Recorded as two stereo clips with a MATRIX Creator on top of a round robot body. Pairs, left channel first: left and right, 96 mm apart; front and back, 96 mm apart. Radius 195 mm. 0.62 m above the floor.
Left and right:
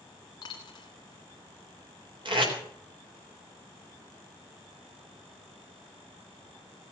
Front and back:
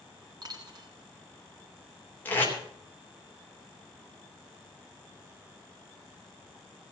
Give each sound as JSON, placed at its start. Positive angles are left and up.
{"t": 0.4, "sound": "a dropped coin", "azimuth_deg": 135, "distance_m": 1.4}
{"t": 2.2, "sound": "tape being pulled", "azimuth_deg": -70, "distance_m": 3.0}